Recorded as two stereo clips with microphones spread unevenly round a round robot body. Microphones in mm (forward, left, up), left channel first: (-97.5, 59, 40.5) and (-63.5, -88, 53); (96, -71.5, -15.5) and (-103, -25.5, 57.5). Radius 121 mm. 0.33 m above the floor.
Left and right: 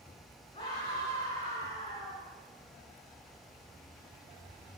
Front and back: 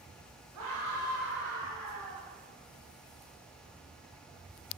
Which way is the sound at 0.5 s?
155° left.